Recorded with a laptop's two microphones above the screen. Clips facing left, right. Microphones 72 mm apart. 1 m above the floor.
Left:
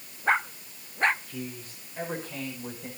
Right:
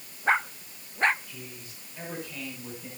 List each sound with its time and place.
1.3 s a man speaking: 45° left (ahead or behind), 5 m; by 2.9 s 35° left (ahead or behind), 5.5 m